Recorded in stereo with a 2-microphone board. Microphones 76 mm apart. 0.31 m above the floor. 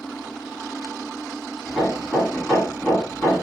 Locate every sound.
1.7 s hammering: 10° left (ahead or behind), 1.8 m